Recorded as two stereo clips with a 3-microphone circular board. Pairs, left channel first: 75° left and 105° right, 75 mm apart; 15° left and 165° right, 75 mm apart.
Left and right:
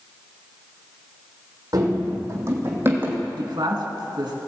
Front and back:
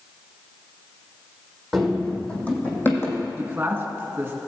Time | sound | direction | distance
1.7 | running footsteps | 75° right | 3 m
3.4 | a man speaking | 100° right | 1.8 m